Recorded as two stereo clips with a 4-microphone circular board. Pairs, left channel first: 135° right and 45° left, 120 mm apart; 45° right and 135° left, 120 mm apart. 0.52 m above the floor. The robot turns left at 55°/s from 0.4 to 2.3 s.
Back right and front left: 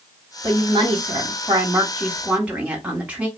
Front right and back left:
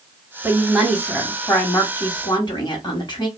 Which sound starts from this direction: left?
A woman speaking, at 0.4 s.